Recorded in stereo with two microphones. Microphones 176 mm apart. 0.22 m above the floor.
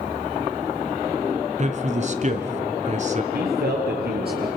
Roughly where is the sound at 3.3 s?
Right.